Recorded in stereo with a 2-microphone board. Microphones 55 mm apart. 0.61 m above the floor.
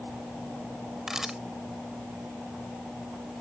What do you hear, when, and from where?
1.1 s a camera shutter: 10° right (ahead or behind)